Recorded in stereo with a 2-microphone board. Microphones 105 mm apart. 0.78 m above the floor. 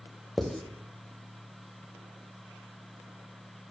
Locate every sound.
0.4 s writing: 5° left (ahead or behind), 0.5 m